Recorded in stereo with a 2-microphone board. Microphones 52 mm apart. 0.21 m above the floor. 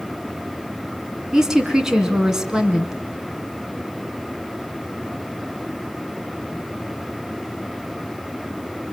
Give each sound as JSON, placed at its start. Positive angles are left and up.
{"t": 1.3, "sound": "a woman speaking", "side_deg": -10, "distance_m": 2.0}